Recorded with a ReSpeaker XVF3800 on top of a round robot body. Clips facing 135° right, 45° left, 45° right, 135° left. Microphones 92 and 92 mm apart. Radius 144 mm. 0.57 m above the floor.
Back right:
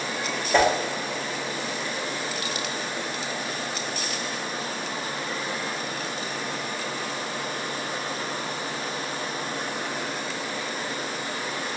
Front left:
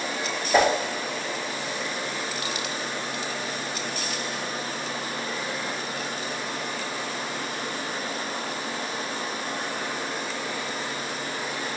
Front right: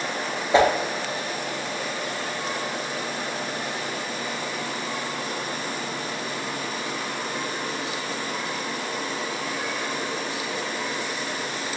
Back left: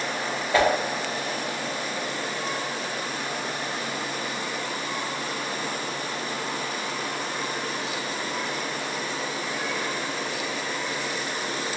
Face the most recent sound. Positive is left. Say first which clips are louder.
# even, front right 3 dB
turn(degrees=-25)